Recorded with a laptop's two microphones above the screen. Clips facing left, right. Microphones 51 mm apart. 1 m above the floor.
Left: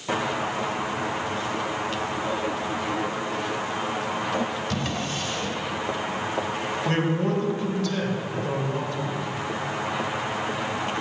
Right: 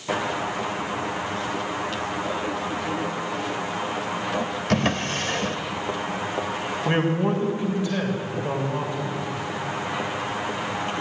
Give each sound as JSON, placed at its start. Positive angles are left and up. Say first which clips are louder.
{"t": 4.7, "sound": "a drawer", "louder": "right 5 dB", "side_deg": -60, "distance_m": 1.2}
{"t": 6.8, "sound": "a man speaking", "louder": "right 3 dB", "side_deg": -20, "distance_m": 3.5}